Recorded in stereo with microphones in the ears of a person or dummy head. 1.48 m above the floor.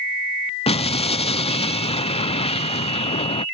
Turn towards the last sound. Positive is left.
turn(degrees=20)  # may be behind; listen again after turning